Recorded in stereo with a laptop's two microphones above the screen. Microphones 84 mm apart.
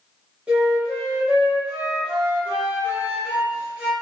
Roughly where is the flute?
Centre.